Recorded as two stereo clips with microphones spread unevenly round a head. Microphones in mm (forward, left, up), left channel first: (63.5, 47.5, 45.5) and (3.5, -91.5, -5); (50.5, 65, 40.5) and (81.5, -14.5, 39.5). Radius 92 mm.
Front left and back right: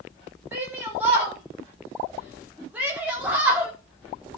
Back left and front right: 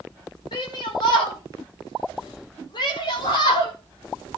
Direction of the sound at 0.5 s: 170° left.